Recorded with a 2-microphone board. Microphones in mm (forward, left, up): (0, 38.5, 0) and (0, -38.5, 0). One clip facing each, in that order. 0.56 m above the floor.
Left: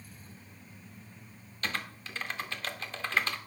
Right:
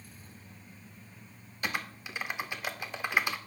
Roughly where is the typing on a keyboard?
Centre.